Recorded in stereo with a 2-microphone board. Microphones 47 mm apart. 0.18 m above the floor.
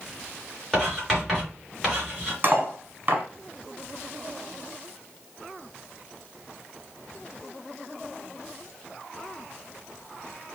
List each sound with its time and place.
0.7 s writing: centre (ahead or behind), 3 m
2.4 s cutlery clinking: 40° right (ahead or behind), 1.0 m